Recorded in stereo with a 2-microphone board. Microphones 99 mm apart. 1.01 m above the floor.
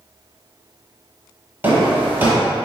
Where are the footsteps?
20° right (ahead or behind), 1.1 m.